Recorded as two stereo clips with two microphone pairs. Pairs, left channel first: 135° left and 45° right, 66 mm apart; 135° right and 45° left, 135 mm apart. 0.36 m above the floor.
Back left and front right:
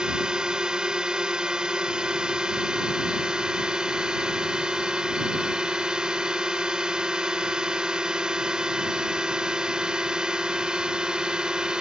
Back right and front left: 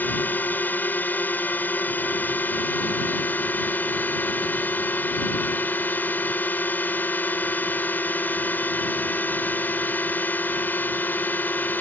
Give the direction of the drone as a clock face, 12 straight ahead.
3 o'clock.